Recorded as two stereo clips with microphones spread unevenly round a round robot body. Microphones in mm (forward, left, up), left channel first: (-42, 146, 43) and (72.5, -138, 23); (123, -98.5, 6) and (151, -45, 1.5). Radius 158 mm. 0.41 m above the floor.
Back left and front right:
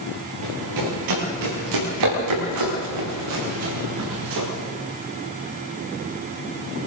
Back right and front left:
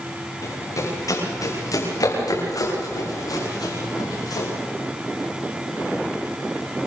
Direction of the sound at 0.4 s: 90° right.